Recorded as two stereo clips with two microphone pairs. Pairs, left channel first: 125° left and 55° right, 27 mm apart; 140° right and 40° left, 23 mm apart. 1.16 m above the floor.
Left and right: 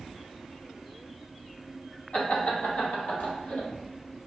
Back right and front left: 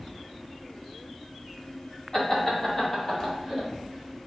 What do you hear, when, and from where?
2.1 s laughter: 165° left, 1.5 m; by 3.7 s 145° left, 2.5 m